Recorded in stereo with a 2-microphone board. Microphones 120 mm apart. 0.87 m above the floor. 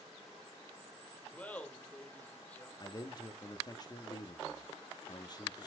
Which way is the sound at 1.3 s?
10° left (ahead or behind).